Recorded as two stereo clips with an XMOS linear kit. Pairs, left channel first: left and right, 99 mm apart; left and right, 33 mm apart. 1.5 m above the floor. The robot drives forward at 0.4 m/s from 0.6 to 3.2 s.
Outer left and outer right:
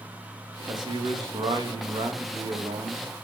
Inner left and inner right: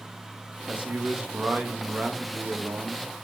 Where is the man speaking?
45° right (ahead or behind), 2.5 m; by 3.2 s 65° right (ahead or behind), 1.8 m.